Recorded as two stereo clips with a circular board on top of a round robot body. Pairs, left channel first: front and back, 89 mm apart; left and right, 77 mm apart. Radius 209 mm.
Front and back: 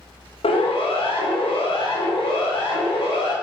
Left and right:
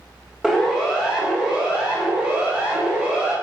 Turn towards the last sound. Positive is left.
turn(degrees=-20)